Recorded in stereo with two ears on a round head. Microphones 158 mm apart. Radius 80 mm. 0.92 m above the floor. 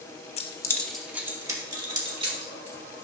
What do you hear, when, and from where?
0.4 s keys jangling: 40° left (ahead or behind), 0.9 m; by 3.0 s 35° right (ahead or behind), 3 m